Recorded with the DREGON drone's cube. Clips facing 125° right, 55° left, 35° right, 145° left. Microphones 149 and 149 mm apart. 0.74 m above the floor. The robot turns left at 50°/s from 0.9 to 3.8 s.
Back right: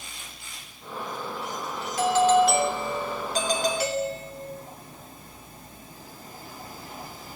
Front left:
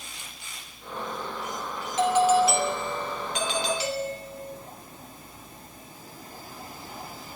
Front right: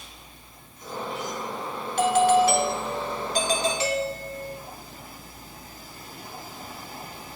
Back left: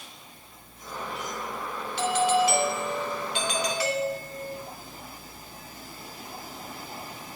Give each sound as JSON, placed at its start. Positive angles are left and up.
{"t": 2.0, "sound": "a doorbell", "azimuth_deg": -5, "distance_m": 3.0}